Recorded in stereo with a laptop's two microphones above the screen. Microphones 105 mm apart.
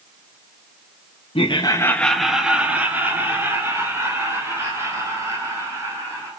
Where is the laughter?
60° left (ahead or behind), 0.6 m; by 6.3 s 30° right (ahead or behind), 5.5 m.